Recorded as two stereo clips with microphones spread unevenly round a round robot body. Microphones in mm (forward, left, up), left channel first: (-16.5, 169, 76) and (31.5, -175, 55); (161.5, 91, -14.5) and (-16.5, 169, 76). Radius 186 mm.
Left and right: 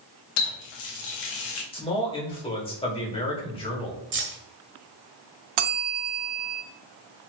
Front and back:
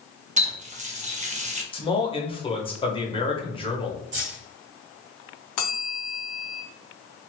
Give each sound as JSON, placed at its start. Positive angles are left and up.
{"t": 0.4, "sound": "a running tap", "azimuth_deg": 95, "distance_m": 1.0}
{"t": 1.7, "sound": "a man speaking", "azimuth_deg": 25, "distance_m": 1.5}
{"t": 4.1, "sound": "keys jangling", "azimuth_deg": -140, "distance_m": 0.9}
{"t": 5.6, "sound": "a bell", "azimuth_deg": -65, "distance_m": 0.5}